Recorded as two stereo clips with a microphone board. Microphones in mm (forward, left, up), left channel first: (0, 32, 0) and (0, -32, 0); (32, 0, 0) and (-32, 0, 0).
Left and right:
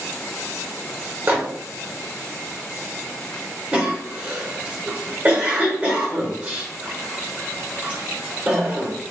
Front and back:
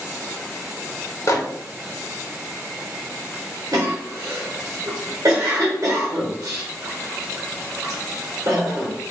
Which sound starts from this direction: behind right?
A cough, at 3.7 s.